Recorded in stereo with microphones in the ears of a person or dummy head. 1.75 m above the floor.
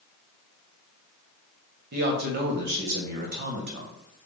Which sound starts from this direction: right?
A man speaking, at 1.9 s.